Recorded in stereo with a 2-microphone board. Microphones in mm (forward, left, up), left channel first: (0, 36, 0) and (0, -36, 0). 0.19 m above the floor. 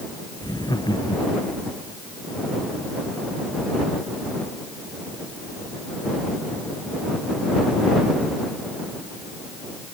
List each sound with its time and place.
0.4 s laughter: 80° left; by 1.7 s 75° left (ahead or behind)